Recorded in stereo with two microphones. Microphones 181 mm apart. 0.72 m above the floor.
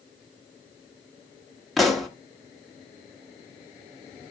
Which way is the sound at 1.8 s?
Centre (ahead or behind).